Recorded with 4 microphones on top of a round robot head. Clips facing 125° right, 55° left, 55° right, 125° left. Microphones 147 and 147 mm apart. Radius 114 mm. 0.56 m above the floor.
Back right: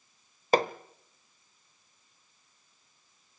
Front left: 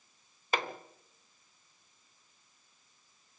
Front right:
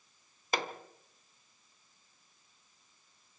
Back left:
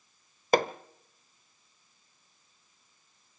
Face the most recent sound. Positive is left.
turn(degrees=175)